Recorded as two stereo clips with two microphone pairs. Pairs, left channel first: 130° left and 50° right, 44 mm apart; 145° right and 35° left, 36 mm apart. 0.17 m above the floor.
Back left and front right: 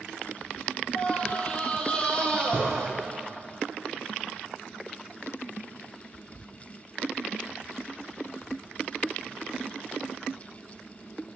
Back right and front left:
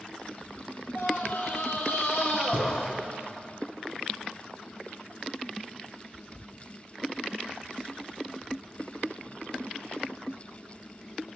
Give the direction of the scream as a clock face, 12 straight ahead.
6 o'clock.